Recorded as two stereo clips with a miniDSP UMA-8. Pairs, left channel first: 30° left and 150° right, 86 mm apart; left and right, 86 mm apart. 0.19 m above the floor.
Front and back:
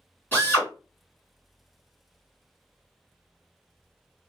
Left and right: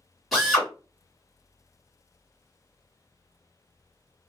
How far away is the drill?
About 1.8 m.